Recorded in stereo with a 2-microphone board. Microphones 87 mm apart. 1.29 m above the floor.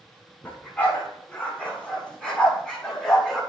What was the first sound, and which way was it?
A dog barking, 20° left (ahead or behind).